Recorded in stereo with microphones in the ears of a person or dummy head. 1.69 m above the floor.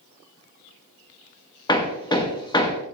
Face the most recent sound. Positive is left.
turn(degrees=20)  # may be behind; listen again after turning